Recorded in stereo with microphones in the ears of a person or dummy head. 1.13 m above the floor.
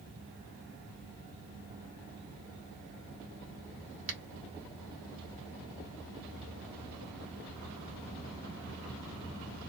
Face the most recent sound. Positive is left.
turn(degrees=-45)  # may be behind; listen again after turning